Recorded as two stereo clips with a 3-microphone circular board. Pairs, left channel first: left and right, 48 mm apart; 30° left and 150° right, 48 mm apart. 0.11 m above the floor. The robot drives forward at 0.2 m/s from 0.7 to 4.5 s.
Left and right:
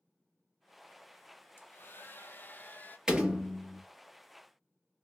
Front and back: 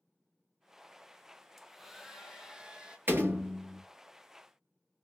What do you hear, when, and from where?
1.6 s a hair dryer: 125° left, 0.7 m; by 3.0 s 140° left, 0.9 m
3.1 s a door slam: 165° right, 1.4 m